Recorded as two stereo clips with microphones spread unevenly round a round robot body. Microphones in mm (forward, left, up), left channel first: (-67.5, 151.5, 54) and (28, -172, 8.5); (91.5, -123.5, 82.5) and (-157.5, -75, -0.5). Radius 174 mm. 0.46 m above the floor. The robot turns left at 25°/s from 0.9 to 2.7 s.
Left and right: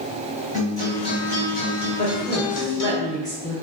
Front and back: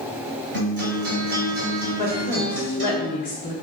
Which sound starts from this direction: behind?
A guitar, at 0.5 s.